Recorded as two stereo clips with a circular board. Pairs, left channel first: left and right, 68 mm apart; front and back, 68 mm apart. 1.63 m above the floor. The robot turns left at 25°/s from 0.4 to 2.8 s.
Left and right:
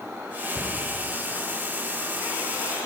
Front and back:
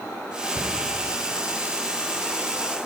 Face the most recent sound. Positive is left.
turn(degrees=100)